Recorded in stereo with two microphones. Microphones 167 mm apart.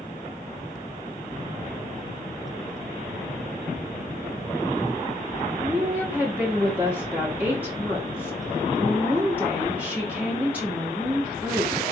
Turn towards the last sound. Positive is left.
turn(degrees=-10)  # may be behind; listen again after turning